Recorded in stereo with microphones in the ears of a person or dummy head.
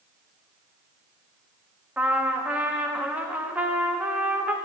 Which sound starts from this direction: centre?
A trumpet, at 2.0 s.